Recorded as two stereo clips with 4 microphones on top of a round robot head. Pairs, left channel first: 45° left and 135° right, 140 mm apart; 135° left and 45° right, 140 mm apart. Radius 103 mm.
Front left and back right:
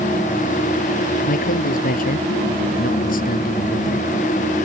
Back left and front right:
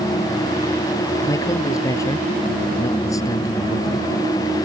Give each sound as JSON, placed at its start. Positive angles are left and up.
{"t": 1.2, "sound": "a man speaking", "azimuth_deg": 65}